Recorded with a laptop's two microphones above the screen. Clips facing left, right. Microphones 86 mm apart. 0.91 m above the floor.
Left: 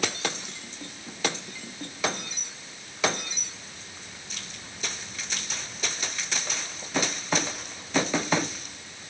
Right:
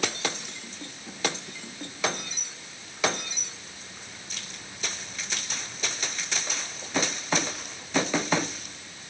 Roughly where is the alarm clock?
I don't hear an alarm clock.